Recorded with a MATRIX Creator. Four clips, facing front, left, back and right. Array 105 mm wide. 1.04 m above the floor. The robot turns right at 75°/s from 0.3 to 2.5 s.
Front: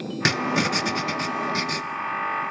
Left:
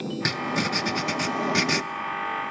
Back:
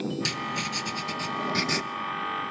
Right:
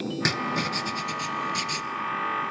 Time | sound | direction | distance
0.2 | writing | 5° right | 0.8 m